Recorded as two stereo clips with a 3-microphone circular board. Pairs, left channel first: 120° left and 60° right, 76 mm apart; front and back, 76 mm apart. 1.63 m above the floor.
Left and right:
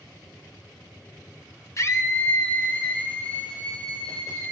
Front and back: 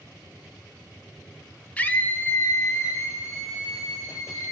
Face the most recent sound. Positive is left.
turn(degrees=45)